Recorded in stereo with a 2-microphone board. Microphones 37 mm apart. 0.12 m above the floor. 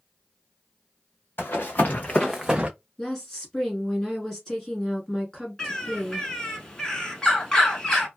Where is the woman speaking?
15° left (ahead or behind), 1.3 m.